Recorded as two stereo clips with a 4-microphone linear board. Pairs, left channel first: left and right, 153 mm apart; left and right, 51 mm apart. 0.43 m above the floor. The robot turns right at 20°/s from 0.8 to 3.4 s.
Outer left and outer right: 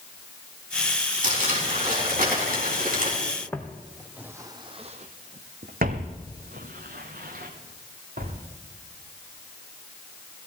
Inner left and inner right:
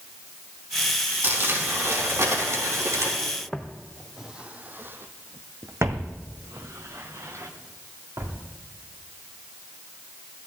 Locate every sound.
1.2 s crumpling: 120° right, 4.5 m; by 3.1 s 80° right, 4.5 m
3.5 s footsteps: 15° left (ahead or behind), 1.1 m; by 8.4 s 70° right (ahead or behind), 3 m